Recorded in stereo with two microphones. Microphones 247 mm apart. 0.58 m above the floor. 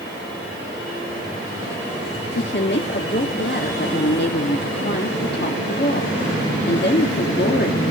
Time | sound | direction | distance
2.4 | a woman speaking | 45° left (ahead or behind) | 0.8 m